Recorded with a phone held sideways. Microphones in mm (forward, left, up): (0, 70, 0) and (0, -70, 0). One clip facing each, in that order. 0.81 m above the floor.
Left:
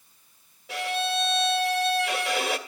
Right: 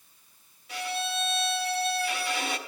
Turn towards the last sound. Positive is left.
turn(degrees=75)  # may be behind; listen again after turning